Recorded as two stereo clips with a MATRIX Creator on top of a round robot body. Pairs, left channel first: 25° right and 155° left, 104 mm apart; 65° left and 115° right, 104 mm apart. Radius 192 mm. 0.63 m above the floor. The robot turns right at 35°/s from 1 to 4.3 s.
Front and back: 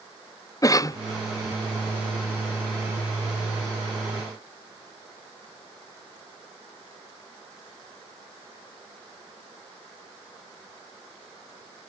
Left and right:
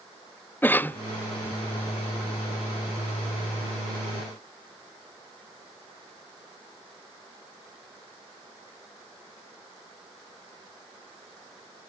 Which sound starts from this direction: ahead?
A cough, at 0.6 s.